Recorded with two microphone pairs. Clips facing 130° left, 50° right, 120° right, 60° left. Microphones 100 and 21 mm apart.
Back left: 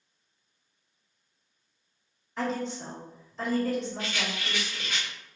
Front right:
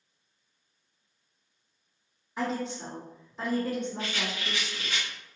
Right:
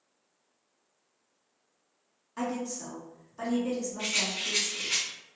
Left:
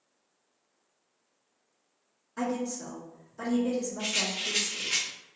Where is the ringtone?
No ringtone in this recording.